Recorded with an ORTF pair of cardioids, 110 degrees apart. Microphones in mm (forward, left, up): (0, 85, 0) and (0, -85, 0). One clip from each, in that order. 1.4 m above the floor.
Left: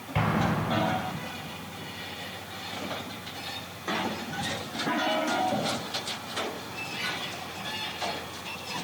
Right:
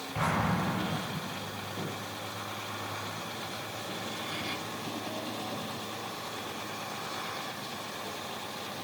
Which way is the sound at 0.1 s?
55° left.